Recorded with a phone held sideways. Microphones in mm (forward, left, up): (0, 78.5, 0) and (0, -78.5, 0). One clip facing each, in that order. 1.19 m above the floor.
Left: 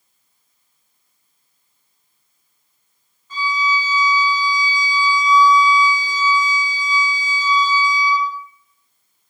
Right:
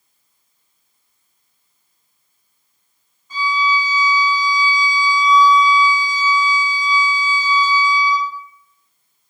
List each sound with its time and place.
3.3 s a violin: 10° right (ahead or behind), 1.0 m